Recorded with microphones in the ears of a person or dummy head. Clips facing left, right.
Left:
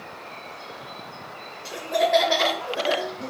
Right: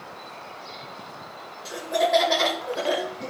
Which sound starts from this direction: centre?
Laughter, at 1.6 s.